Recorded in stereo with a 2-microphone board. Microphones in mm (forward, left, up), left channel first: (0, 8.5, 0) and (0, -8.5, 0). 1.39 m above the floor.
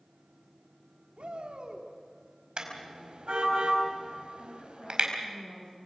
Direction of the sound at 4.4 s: 40° left (ahead or behind).